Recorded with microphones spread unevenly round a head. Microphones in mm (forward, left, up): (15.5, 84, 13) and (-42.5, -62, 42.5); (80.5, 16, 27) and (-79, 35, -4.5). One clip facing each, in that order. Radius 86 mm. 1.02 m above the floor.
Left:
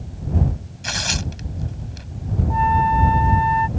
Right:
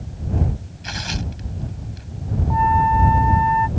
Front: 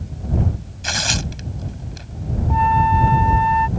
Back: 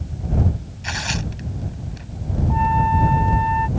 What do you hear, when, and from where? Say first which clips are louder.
0.8 s tearing paper: left 1 dB, front 2 dB; 25° left
2.5 s a flute: right 1 dB, front 3 dB; 30° left